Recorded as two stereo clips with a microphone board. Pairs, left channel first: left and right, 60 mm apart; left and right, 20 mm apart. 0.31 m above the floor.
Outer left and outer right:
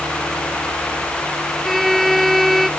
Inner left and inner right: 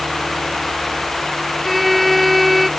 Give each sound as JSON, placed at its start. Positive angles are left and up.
{"t": 1.6, "sound": "a violin", "side_deg": 0}